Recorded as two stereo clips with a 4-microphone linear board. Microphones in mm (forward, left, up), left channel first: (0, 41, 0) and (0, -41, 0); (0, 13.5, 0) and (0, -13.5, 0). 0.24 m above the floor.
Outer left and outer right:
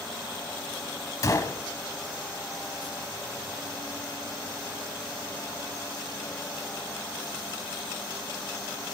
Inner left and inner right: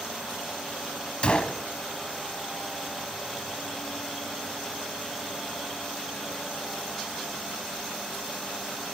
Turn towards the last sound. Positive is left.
turn(degrees=40)  # may be behind; listen again after turning